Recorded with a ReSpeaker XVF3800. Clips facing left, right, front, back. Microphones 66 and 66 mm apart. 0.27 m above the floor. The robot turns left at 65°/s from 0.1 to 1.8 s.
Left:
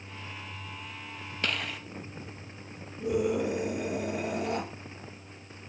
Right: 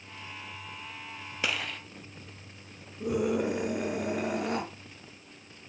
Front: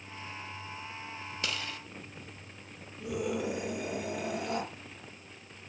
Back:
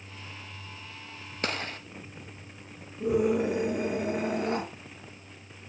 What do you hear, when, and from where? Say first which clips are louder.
1.4 s a gunshot: even, back 6 dB; 165° right, 0.5 m; by 1.8 s 170° left, 0.5 m
3.0 s a scream: even, back 8 dB; 130° right, 4.5 m